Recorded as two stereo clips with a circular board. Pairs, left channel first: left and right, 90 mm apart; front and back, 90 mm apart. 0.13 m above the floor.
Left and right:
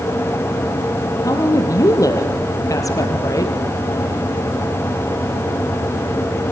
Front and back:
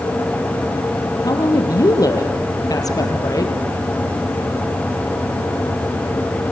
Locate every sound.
1.2 s a woman speaking: 40° left, 3.5 m